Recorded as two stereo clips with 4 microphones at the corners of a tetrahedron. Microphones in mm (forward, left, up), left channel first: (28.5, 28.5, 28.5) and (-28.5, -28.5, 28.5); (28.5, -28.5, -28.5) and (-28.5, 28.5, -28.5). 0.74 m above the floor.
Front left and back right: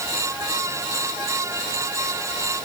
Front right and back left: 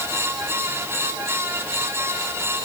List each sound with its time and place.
Only background noise.